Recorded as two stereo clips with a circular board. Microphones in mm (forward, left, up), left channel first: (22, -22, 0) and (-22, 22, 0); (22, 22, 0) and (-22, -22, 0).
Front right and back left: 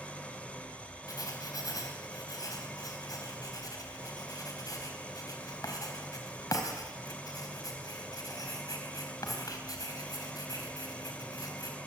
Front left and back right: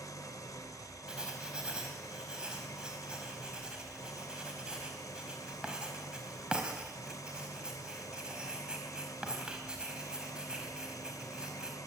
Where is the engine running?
25° left, 1.7 m.